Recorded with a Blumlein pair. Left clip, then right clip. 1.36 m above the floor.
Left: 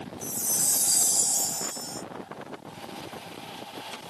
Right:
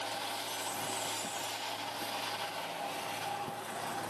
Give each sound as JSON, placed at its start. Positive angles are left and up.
{"t": 0.2, "sound": "a chime", "azimuth_deg": 50}